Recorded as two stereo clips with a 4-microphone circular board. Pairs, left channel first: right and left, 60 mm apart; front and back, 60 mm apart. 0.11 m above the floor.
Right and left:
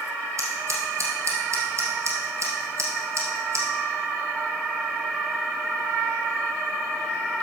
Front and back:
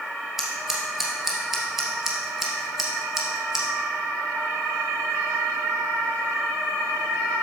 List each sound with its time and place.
0.4 s scissors: 100° left, 2 m